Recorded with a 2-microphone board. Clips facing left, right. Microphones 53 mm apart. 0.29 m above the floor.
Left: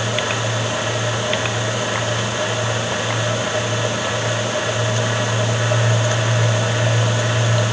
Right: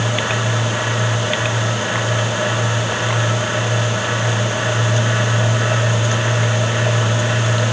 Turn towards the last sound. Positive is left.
No sound to turn to.